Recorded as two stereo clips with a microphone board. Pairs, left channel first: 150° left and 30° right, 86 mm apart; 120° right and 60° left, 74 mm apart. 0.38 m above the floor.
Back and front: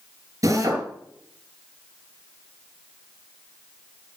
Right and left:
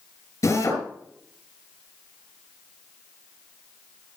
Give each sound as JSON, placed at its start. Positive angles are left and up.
{"t": 0.4, "sound": "a drill", "azimuth_deg": -75, "distance_m": 4.0}